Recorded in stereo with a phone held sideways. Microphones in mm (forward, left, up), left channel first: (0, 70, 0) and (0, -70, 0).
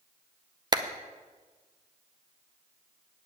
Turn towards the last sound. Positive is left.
turn(degrees=-30)  # may be behind; listen again after turning